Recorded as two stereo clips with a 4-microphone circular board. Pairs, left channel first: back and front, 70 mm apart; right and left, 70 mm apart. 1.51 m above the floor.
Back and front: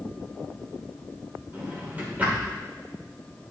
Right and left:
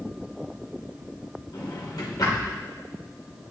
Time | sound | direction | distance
1.5 | a drawer | 65° right | 3 m